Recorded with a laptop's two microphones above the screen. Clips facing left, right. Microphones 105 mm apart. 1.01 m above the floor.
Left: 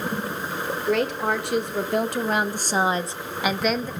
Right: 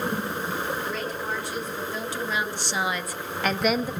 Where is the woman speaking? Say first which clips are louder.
Left 8 dB; 75° left (ahead or behind), 3 m; by 3.9 s 15° right (ahead or behind), 1.3 m.